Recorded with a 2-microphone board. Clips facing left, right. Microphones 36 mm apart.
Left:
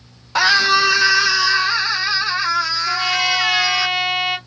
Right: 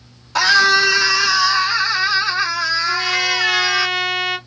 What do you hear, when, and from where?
0.3 s a scream: 10° left (ahead or behind), 1.0 m; by 3.9 s 5° right (ahead or behind), 3 m
2.9 s a trumpet: 10° left (ahead or behind), 1.3 m